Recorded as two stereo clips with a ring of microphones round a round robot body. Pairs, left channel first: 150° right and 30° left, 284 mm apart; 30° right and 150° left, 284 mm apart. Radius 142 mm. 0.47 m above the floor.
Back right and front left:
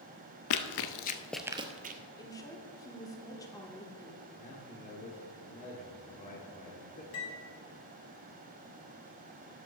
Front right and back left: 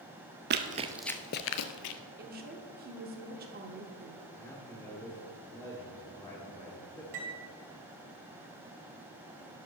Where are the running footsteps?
165° right, 0.7 m; by 2.0 s 25° right, 0.9 m.